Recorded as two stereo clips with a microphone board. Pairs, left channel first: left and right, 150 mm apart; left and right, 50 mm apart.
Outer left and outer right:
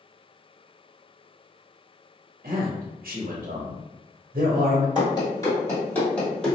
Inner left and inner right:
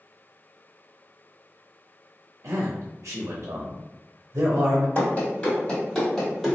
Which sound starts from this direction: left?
Running footsteps, at 5.0 s.